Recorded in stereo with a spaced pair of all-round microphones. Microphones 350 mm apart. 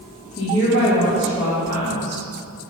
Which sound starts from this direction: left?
A woman speaking, at 0.4 s.